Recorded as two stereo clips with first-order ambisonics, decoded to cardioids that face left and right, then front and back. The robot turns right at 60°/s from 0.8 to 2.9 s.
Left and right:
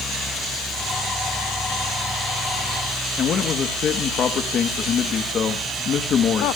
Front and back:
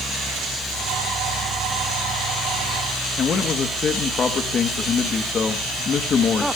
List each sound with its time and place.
3.2 s a man speaking: 50° left, 1.2 m